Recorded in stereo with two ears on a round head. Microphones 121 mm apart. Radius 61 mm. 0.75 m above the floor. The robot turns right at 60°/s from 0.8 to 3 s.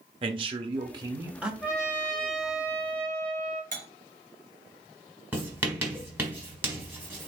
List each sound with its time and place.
0.2 s a man speaking: 45° right, 0.8 m; by 1.5 s 5° right, 0.8 m
1.6 s a trumpet: 175° right, 2.5 m; by 3.6 s 90° right, 2.5 m
3.7 s cutlery clinking: 60° right (ahead or behind), 1.8 m
5.3 s writing: 15° right (ahead or behind), 1.5 m